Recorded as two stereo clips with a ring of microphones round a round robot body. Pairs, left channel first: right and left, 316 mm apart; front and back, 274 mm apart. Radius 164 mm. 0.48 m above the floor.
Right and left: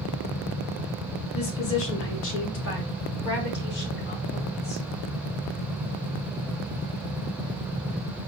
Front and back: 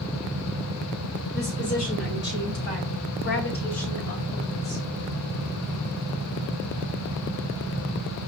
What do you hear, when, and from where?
1.3 s a woman speaking: 65° right, 1.3 m; by 4.8 s 30° right, 3 m